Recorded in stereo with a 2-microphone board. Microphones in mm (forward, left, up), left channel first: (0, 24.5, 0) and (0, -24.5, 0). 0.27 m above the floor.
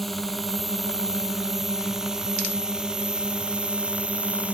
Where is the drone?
Centre (ahead or behind); by 4.5 s 30° right (ahead or behind).